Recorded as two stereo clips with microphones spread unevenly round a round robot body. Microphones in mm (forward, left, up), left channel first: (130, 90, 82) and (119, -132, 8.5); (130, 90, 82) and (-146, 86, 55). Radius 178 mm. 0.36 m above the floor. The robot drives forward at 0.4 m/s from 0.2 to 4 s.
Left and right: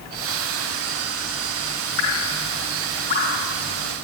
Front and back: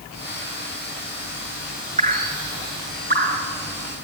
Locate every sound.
2.0 s dripping: 115° left, 2.5 m; by 3.5 s 125° left, 3 m